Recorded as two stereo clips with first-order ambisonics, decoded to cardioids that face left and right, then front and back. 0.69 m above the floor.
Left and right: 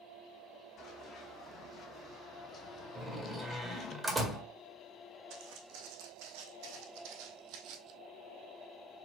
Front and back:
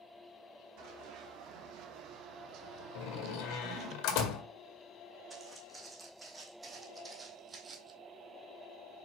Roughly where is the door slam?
Ahead.